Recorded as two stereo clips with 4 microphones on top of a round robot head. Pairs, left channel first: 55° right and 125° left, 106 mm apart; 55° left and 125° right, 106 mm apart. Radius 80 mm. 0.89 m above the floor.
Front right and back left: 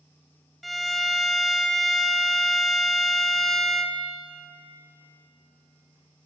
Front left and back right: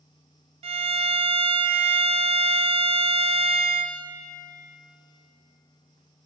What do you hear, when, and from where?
0.6 s a violin: 145° right, 0.5 m